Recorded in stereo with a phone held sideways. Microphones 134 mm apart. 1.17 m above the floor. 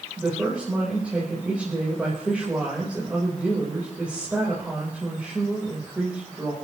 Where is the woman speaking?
10° right (ahead or behind), 4 m.